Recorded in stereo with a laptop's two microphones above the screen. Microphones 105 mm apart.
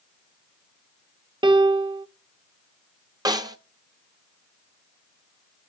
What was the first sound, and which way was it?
A piano, 45° right (ahead or behind).